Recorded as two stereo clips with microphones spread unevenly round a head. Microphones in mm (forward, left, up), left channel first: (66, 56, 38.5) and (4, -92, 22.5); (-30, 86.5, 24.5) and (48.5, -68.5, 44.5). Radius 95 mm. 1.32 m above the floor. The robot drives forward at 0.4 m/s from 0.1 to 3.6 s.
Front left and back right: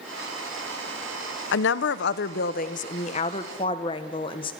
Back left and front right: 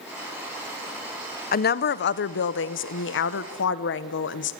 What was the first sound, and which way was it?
A woman speaking, 80° left.